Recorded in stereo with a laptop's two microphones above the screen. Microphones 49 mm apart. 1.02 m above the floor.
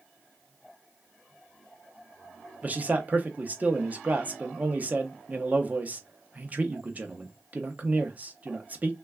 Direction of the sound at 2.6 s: 30° right (ahead or behind).